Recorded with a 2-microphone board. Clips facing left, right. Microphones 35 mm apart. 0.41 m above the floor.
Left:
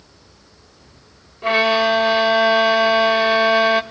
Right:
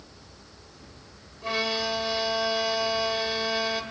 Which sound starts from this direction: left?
A violin, at 1.4 s.